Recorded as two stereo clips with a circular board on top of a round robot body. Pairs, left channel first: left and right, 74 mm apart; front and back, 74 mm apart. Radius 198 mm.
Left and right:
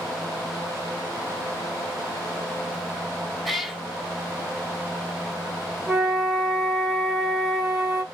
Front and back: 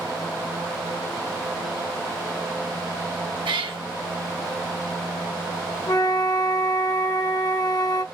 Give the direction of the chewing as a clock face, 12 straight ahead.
I don't hear chewing.